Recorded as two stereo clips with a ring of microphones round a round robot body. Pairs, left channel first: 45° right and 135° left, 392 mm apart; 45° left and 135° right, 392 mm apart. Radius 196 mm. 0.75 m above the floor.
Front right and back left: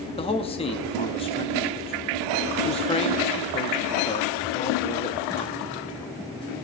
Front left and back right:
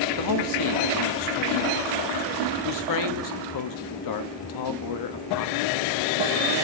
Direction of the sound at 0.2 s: 30° left.